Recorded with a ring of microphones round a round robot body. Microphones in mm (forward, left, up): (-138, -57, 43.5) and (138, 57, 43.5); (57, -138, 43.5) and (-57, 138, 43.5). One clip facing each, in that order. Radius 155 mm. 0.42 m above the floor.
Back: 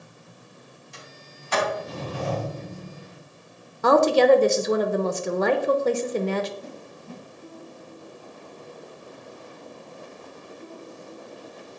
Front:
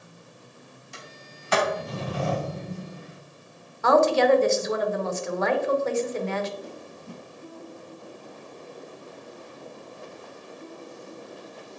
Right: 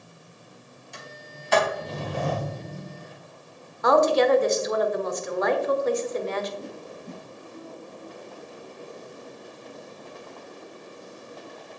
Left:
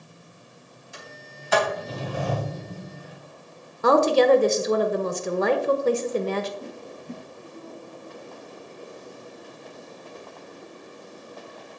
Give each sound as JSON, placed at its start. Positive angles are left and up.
{"t": 0.9, "sound": "a sliding door", "azimuth_deg": 25, "distance_m": 3.0}
{"t": 3.8, "sound": "a woman speaking", "azimuth_deg": 160, "distance_m": 1.1}
{"t": 6.6, "sound": "a whoosh", "azimuth_deg": -50, "distance_m": 5.0}